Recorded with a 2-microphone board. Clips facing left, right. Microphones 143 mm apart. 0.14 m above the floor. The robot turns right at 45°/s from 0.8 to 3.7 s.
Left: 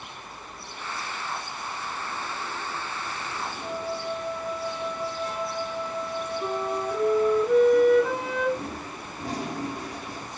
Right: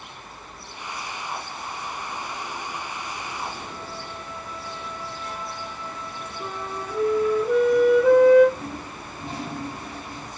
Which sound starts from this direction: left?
A toilet flushing, at 8.6 s.